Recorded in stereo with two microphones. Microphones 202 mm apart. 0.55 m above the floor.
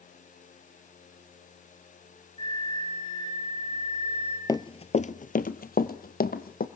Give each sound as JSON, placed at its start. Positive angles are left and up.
{"t": 2.4, "sound": "a flute", "side_deg": 25, "distance_m": 6.5}
{"t": 4.5, "sound": "running footsteps", "side_deg": 15, "distance_m": 0.6}